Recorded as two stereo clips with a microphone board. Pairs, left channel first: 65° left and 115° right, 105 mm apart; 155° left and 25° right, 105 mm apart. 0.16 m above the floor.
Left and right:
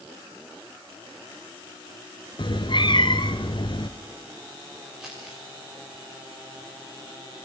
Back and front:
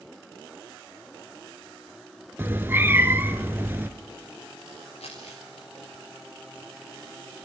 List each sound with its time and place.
2.4 s a cat meowing: 45° left, 1.2 m
5.0 s crumpling: 160° left, 7.5 m